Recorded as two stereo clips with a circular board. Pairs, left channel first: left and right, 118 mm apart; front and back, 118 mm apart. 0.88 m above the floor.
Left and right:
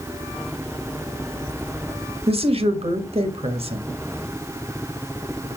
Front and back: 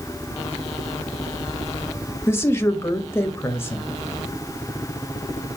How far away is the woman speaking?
About 1.3 m.